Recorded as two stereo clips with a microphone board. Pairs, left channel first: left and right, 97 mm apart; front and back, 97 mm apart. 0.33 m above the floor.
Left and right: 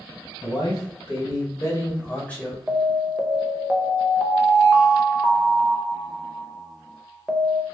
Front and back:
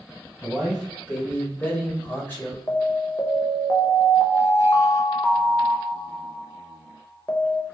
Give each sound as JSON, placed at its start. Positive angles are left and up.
{"t": 0.4, "sound": "a man speaking", "azimuth_deg": 80, "distance_m": 1.9}
{"t": 2.7, "sound": "an alarm", "azimuth_deg": -15, "distance_m": 0.6}